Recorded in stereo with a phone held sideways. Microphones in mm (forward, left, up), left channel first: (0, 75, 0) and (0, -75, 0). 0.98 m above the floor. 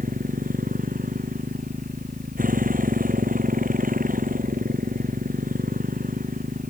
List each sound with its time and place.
0.0 s a motorcycle: 80° right